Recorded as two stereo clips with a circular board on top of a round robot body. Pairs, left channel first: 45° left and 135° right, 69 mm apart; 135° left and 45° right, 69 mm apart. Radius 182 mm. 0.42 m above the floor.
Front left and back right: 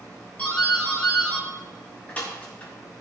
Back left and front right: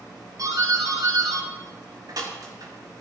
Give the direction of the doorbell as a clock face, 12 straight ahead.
1 o'clock.